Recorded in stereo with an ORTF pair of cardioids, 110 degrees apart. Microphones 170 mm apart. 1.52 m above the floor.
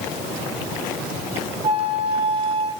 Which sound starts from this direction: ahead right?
A flute, at 1.6 s.